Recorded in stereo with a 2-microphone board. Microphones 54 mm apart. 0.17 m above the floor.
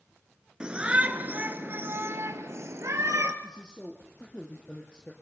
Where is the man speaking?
15° left (ahead or behind), 3.5 m.